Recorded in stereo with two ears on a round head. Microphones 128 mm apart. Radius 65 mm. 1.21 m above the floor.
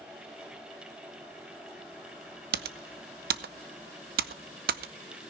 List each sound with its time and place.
2.5 s typing on a keyboard: 75° right (ahead or behind), 0.8 m